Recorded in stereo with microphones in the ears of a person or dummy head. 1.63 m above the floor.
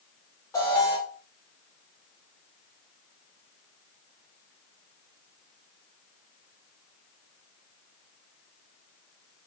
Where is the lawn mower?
No lawn mower in this recording.